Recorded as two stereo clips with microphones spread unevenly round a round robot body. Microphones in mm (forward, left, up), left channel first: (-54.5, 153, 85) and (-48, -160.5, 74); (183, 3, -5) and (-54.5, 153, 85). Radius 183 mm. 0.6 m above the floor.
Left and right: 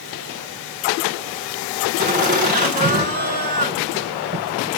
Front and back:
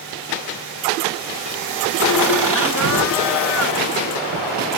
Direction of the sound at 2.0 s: 155° right.